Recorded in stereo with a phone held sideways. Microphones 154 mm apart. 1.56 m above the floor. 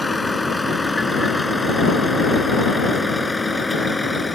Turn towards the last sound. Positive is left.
turn(degrees=0)  # may be behind; listen again after turning